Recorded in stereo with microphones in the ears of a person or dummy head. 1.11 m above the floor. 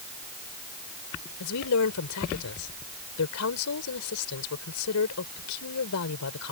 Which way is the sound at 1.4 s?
80° left.